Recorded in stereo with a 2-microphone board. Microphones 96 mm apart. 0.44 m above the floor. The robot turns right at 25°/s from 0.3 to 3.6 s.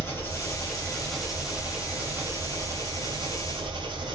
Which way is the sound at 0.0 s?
155° left.